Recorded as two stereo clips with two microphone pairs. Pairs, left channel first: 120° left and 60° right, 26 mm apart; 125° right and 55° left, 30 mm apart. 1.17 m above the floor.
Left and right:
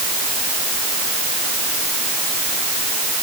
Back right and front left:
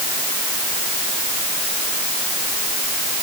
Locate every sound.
Only background noise.